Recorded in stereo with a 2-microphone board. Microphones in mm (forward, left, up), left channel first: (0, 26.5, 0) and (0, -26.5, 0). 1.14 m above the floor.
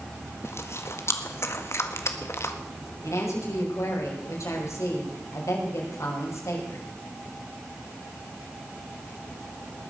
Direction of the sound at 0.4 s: 55° left (ahead or behind).